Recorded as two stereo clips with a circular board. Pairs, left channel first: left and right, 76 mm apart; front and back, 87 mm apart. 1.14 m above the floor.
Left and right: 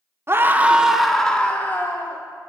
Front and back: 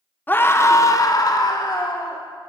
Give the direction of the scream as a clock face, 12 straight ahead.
2 o'clock.